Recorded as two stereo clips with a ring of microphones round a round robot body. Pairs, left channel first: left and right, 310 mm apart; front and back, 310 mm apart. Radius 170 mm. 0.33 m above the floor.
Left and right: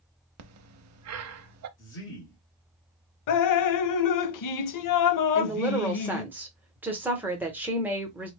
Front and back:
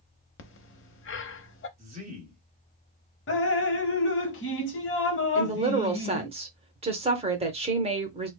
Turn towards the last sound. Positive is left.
turn(degrees=-165)